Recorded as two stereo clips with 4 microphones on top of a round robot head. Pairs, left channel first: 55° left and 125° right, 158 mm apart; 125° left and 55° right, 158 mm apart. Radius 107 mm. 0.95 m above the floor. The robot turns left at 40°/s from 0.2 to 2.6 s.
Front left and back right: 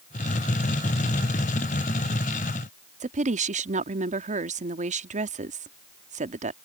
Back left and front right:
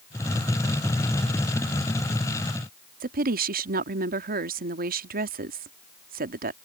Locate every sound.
3.0 s a woman speaking: 85° right